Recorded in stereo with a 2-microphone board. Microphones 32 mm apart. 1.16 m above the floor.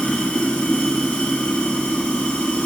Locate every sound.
0.0 s running water: 40° left (ahead or behind), 0.7 m